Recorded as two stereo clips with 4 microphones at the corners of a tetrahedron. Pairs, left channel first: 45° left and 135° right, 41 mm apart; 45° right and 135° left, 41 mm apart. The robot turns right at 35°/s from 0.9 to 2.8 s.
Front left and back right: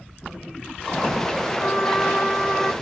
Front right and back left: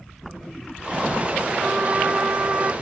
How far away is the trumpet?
About 3 m.